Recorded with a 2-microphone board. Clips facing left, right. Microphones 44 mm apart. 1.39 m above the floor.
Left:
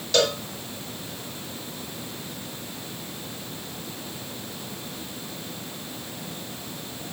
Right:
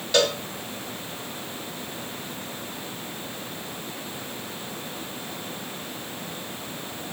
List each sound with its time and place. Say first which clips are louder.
0.1 s a cowbell: even; 10° right (ahead or behind), 1.4 m